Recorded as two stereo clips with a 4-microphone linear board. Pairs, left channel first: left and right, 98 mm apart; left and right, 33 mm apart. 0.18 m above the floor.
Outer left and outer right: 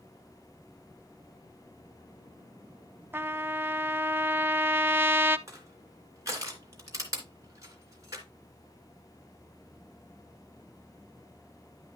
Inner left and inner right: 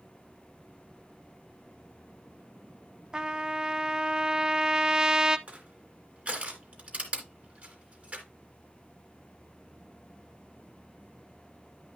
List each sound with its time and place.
3.1 s a trumpet: 20° right (ahead or behind), 0.5 m
5.5 s crushing: 35° right (ahead or behind), 3 m